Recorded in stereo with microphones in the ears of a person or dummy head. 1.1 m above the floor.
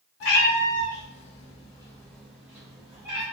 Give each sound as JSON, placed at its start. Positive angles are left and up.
{"t": 0.2, "sound": "a cat meowing", "side_deg": 65, "distance_m": 1.0}